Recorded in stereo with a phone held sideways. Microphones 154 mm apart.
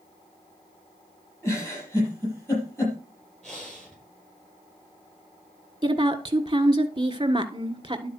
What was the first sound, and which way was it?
A giggle, 20° left (ahead or behind).